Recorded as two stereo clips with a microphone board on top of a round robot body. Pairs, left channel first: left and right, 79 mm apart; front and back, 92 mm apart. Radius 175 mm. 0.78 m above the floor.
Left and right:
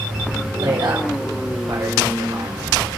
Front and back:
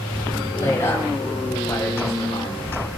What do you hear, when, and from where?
0.6 s a woman speaking: 65° right, 5 m; by 2.8 s 50° right, 3 m